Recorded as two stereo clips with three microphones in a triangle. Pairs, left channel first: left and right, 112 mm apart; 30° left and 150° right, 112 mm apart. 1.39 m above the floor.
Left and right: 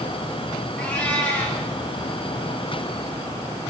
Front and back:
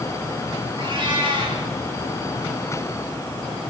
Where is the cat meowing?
170° left, 5.5 m.